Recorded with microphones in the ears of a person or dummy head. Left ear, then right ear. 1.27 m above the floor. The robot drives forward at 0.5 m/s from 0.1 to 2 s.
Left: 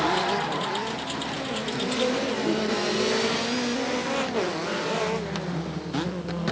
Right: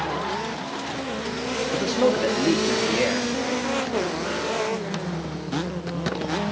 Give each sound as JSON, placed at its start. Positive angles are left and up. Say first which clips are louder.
{"t": 1.7, "sound": "a man speaking", "louder": "right 5 dB", "side_deg": -65, "distance_m": 0.6}